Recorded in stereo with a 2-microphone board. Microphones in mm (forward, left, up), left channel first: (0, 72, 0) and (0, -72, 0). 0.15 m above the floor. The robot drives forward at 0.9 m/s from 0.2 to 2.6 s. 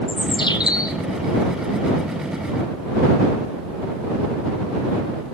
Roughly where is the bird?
Left.